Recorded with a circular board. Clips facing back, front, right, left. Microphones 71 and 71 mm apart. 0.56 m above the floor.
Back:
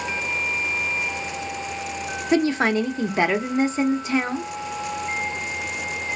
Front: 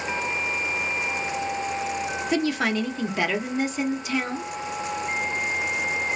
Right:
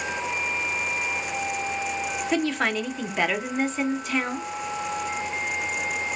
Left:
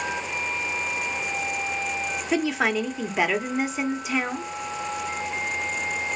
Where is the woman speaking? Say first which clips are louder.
Back 5 dB, left 2 dB; 170° left, 0.7 m.